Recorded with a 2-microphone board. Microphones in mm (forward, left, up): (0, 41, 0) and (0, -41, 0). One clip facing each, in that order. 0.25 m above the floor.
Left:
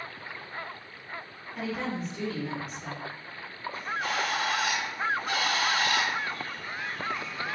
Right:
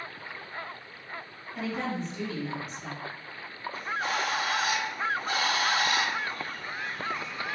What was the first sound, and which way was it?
A woman speaking, centre (ahead or behind).